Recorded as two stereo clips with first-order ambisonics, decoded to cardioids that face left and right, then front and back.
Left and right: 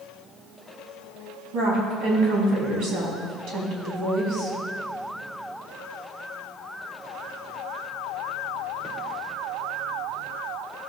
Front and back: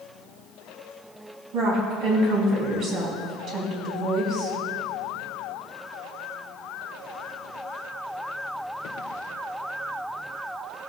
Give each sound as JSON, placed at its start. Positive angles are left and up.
{"t": 1.5, "sound": "a woman speaking", "azimuth_deg": -125, "distance_m": 4.0}